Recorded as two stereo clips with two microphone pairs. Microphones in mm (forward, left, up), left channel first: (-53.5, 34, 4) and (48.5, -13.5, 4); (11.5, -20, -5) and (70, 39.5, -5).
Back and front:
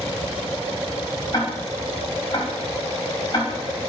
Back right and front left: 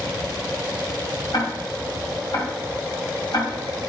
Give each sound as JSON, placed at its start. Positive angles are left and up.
{"t": 1.3, "sound": "ticking", "azimuth_deg": -160, "distance_m": 2.5}